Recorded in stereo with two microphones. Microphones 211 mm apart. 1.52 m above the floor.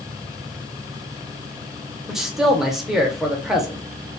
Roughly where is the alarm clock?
No alarm clock in this recording.